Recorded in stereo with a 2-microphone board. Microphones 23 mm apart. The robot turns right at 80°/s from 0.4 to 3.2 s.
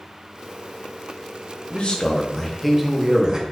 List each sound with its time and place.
1.7 s a man speaking: 105° left, 0.7 m; by 3.4 s 135° right, 0.7 m